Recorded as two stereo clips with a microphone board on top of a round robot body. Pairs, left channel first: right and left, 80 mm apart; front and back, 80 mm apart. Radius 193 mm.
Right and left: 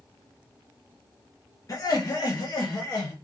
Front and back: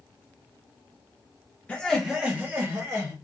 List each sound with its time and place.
1.7 s laughter: 70° right, 0.8 m; by 3.1 s 135° right, 1.2 m